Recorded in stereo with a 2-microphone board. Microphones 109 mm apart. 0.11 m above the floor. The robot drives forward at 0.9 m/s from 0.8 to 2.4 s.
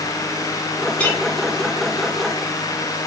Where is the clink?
10° left (ahead or behind), 2 m; by 1.2 s 15° left (ahead or behind), 2 m.